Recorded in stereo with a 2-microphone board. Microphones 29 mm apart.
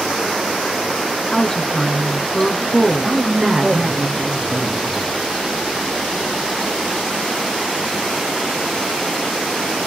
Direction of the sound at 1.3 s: 25° left (ahead or behind).